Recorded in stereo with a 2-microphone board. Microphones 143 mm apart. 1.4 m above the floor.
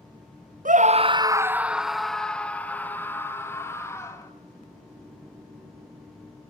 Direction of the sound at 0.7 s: 70° right (ahead or behind).